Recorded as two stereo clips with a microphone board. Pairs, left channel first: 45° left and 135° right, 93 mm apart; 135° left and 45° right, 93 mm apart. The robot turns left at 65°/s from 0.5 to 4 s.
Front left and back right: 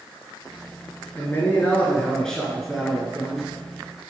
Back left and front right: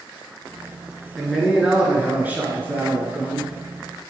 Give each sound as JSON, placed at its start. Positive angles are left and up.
{"t": 1.1, "sound": "a man speaking", "azimuth_deg": 50, "distance_m": 1.1}